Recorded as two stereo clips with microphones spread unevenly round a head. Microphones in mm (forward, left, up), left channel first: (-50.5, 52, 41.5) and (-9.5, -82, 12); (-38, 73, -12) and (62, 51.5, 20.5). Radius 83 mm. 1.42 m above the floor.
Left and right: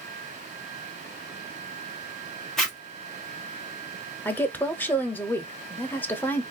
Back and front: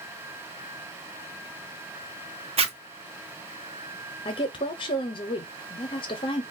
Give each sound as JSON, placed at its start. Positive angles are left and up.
{"t": 2.6, "sound": "a zipper", "azimuth_deg": 15, "distance_m": 1.0}
{"t": 4.2, "sound": "a woman speaking", "azimuth_deg": -170, "distance_m": 0.7}